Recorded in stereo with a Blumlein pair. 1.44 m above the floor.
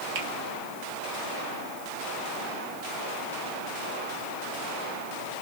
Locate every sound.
0.1 s a finger snap: 45° right, 1.3 m